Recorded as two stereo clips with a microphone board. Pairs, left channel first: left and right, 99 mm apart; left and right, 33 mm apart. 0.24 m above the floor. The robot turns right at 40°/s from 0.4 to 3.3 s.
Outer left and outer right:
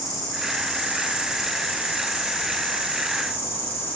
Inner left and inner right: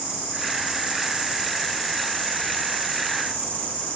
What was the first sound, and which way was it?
An insect, 40° right.